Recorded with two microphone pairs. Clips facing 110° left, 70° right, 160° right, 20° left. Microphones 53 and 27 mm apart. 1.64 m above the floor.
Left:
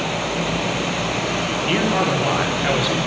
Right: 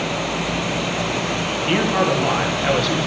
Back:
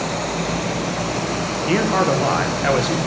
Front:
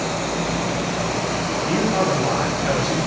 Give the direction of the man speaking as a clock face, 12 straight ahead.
5 o'clock.